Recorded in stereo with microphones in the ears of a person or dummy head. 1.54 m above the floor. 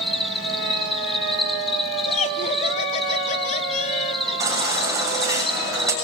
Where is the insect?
5° left (ahead or behind), 1.7 m.